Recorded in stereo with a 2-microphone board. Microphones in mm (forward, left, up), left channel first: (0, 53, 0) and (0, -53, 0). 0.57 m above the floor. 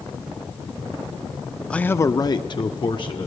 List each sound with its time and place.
1.7 s a man speaking: 10° left (ahead or behind), 0.7 m; by 3.3 s 45° left (ahead or behind), 1.4 m